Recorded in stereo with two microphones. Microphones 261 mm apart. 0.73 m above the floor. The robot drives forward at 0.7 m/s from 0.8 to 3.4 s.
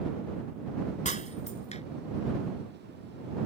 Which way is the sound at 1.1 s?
30° left (ahead or behind).